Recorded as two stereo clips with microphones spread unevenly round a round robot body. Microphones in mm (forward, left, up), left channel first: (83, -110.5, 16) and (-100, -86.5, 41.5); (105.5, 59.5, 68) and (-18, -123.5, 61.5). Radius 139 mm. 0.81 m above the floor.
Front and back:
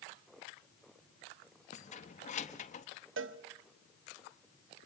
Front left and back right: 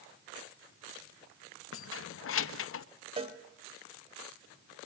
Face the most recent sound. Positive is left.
turn(degrees=170)